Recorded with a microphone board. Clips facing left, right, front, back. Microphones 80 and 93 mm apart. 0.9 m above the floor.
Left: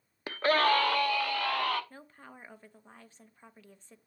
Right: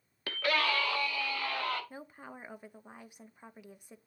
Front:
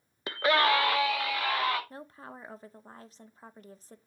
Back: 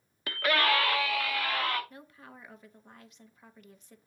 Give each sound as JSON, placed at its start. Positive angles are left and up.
{"t": 0.3, "sound": "a scream", "azimuth_deg": 40, "distance_m": 0.7}
{"t": 1.9, "sound": "a woman speaking", "azimuth_deg": -25, "distance_m": 0.7}